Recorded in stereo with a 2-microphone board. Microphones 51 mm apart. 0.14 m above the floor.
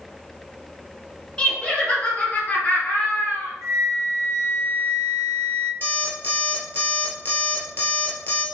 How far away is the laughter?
About 1.5 m.